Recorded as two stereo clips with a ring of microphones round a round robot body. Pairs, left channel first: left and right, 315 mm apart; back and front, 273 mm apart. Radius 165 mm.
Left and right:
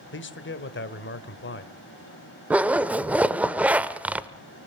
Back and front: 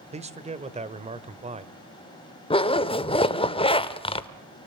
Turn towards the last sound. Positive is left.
turn(degrees=-165)